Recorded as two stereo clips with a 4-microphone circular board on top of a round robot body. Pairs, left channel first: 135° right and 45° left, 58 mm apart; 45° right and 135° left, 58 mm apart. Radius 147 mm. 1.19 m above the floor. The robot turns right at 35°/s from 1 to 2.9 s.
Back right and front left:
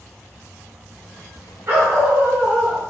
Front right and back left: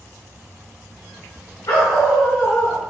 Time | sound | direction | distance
1.7 | a dog barking | 5° right | 2 m